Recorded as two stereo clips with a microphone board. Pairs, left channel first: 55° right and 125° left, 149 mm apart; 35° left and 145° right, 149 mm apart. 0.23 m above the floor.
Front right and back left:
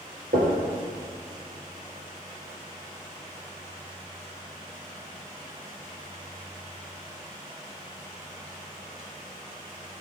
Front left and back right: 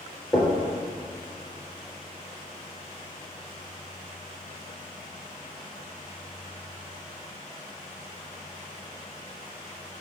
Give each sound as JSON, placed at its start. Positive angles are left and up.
{"t": 0.3, "sound": "knocking", "azimuth_deg": 120, "distance_m": 3.0}